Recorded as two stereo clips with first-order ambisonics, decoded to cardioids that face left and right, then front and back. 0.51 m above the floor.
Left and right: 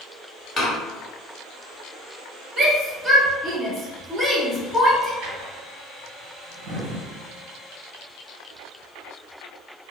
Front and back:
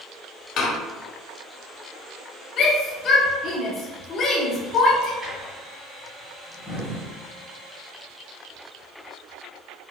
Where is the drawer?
110° right, 1.1 m.